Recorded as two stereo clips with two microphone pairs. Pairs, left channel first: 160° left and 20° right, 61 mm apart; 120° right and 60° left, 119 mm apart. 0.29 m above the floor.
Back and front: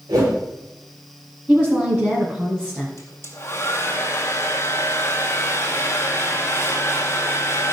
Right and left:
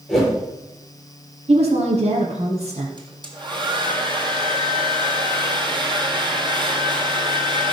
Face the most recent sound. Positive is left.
turn(degrees=110)